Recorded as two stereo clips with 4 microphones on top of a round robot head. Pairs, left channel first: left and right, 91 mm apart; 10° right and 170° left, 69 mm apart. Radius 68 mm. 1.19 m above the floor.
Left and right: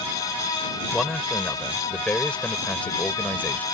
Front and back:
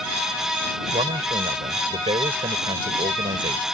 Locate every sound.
0.9 s a man speaking: 175° left; by 3.6 s 160° left